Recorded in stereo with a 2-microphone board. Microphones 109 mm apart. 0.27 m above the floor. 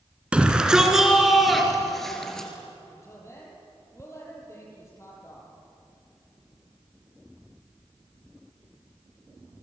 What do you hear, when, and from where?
0.3 s a shout: 10° right (ahead or behind), 3.5 m; by 2.5 s 5° left (ahead or behind), 6 m
2.9 s a woman speaking: 25° left (ahead or behind), 8.5 m